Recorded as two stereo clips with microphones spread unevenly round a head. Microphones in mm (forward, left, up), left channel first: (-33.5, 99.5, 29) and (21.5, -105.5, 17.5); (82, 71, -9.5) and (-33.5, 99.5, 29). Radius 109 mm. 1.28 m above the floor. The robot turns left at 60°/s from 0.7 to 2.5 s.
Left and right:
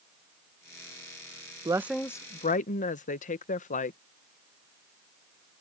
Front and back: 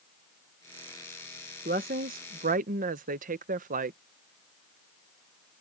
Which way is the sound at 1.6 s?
145° right.